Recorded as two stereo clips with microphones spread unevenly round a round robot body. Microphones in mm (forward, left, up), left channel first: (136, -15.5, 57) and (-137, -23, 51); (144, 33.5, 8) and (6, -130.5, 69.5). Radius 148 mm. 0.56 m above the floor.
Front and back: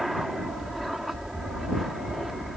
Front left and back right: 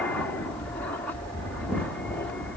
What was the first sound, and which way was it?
An aircraft, 95° left.